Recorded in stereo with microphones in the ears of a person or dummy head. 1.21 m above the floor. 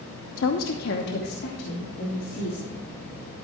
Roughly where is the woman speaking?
Left.